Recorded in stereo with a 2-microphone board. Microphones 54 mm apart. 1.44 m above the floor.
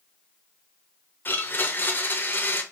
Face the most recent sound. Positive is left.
turn(degrees=35)  # may be behind; listen again after turning